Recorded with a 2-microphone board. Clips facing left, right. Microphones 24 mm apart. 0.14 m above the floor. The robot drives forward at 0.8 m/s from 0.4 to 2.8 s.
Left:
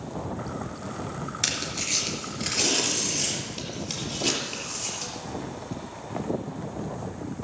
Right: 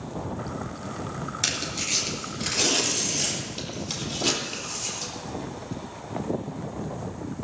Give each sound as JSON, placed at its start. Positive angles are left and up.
{"t": 1.4, "sound": "tearing paper", "side_deg": 0, "distance_m": 2.5}